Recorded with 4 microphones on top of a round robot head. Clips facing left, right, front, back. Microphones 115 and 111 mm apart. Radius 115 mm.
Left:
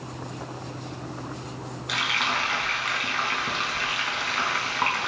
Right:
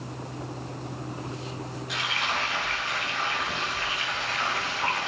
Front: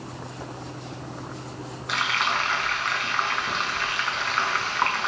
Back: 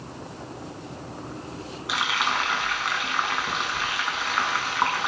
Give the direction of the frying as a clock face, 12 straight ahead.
9 o'clock.